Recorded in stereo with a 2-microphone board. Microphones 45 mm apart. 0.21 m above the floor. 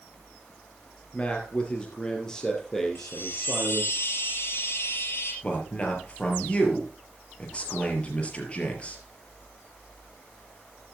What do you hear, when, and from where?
1.1 s a man speaking: 25° left (ahead or behind), 3.5 m; by 4.0 s centre (ahead or behind), 4.5 m
3.0 s a chime: 55° left (ahead or behind), 3.5 m
5.4 s a man speaking: 25° left (ahead or behind), 4 m